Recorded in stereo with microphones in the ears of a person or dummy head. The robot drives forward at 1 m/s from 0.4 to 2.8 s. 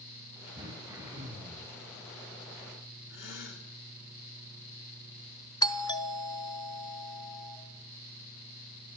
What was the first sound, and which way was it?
Throat clearing, 20° right (ahead or behind).